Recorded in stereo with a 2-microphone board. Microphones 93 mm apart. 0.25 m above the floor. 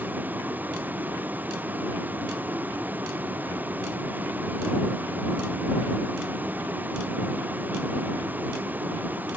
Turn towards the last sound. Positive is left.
turn(degrees=-20)  # may be behind; listen again after turning